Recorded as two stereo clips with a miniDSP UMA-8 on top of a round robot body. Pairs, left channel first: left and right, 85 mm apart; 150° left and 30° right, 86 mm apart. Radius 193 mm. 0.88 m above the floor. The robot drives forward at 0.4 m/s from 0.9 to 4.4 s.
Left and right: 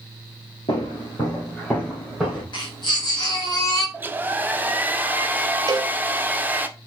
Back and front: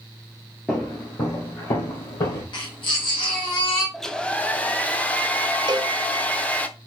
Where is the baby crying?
120° left, 1.1 m; by 3.8 s 140° left, 1.4 m.